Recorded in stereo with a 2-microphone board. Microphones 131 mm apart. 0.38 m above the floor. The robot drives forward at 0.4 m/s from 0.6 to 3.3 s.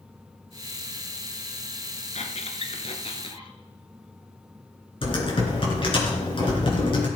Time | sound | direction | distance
2.1 | a squeak | 60° left (ahead or behind) | 1.3 m
5.0 | typing on a keyboard | 40° left (ahead or behind) | 4 m